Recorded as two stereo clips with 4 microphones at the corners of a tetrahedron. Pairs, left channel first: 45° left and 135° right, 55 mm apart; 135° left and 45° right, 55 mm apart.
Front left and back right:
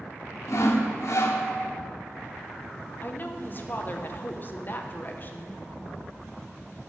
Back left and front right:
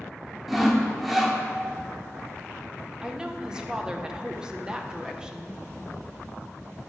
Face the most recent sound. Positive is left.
turn(degrees=20)